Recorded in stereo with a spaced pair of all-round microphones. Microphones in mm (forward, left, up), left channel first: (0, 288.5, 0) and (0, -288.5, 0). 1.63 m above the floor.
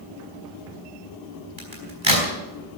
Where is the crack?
55° right (ahead or behind), 5 m.